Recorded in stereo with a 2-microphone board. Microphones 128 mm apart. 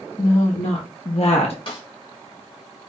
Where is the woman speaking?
60° left (ahead or behind), 1.3 m; by 1.6 s 55° left (ahead or behind), 0.9 m.